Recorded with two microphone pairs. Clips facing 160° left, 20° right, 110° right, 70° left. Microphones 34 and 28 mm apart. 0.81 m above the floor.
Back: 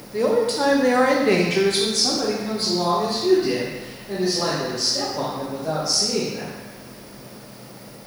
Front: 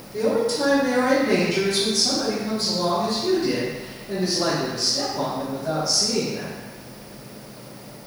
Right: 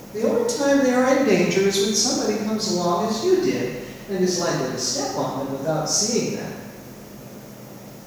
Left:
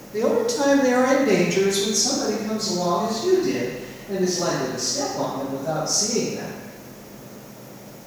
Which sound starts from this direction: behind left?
A man speaking, at 0.1 s.